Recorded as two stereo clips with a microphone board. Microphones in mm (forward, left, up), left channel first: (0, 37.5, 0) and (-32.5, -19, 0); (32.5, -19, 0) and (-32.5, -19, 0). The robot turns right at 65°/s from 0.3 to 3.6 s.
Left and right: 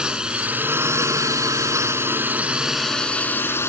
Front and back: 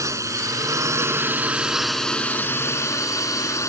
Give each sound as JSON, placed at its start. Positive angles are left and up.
{"t": 0.0, "sound": "a drone", "azimuth_deg": 165}